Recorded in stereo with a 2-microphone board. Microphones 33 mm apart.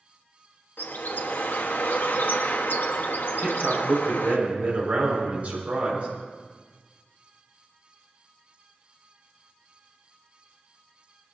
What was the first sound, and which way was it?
A bird, 85° left.